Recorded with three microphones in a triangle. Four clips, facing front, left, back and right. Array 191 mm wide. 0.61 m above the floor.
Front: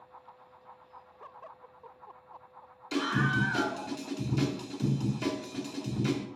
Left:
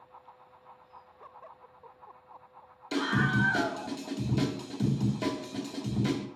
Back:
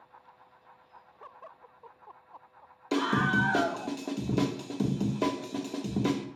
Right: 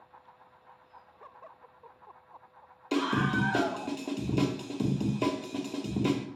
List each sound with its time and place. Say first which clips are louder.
2.9 s a scream: even, back 3 dB; 155° right, 1.3 m